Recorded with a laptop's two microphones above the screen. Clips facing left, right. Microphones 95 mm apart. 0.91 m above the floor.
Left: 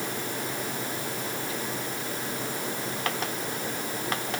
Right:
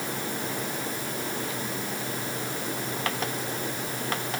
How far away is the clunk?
No clunk in this recording.